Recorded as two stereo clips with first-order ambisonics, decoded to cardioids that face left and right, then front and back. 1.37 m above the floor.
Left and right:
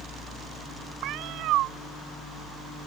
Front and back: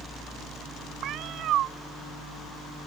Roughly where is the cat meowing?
Behind right.